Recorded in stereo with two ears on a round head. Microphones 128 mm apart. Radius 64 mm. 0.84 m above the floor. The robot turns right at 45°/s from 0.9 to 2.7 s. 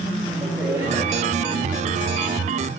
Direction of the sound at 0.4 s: 15° right (ahead or behind).